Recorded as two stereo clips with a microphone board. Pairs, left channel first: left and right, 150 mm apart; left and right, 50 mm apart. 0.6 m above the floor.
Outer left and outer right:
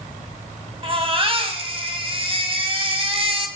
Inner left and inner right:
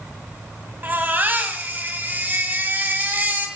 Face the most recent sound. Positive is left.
turn(degrees=-40)  # may be behind; listen again after turning